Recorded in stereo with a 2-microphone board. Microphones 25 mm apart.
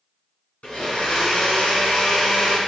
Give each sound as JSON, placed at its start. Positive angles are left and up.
{"t": 0.6, "sound": "a blender", "side_deg": 80, "distance_m": 2.5}